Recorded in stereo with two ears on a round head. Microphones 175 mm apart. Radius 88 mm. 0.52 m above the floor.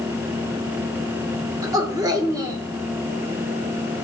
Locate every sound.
1.6 s a woman speaking: 20° right (ahead or behind), 1.4 m